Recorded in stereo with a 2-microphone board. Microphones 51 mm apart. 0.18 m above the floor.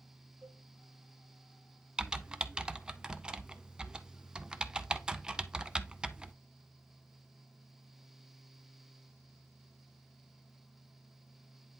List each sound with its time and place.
0.4 s a cowbell: 75° right (ahead or behind), 3 m
2.0 s typing on a keyboard: 15° right (ahead or behind), 0.6 m